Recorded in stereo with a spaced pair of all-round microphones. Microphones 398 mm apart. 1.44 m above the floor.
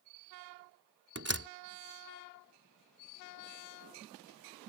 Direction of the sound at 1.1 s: 35° right (ahead or behind).